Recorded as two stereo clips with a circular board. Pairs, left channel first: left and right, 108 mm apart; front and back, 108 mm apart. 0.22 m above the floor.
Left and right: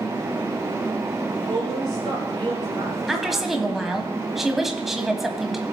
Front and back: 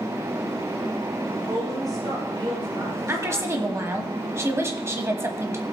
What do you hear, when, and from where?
1.3 s a woman speaking: 130° right, 6.5 m
3.1 s a woman speaking: 175° right, 1.2 m